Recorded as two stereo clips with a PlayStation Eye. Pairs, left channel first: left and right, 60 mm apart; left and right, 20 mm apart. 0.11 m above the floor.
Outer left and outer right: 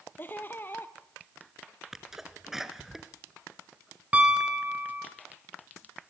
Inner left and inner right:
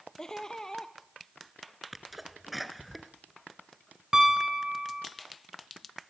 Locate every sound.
0.2 s laughter: 35° left (ahead or behind), 2.5 m
1.9 s a sneeze: 5° right (ahead or behind), 1.5 m
4.1 s a piano: 25° right (ahead or behind), 3.5 m